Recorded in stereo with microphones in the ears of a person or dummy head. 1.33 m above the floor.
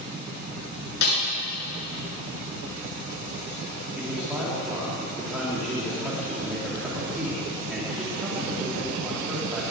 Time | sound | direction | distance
1.0 | a snare drum | 50° left (ahead or behind) | 7.5 m
4.0 | a man speaking | 5° right (ahead or behind) | 3 m